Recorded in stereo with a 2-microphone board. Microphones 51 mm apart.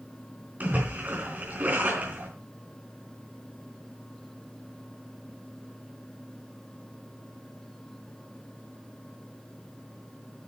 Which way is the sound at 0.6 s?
40° right (ahead or behind).